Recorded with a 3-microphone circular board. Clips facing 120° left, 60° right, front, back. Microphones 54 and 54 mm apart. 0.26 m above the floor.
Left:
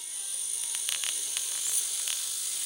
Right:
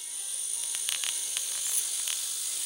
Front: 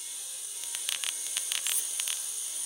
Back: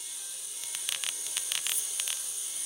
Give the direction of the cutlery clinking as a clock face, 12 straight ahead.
12 o'clock.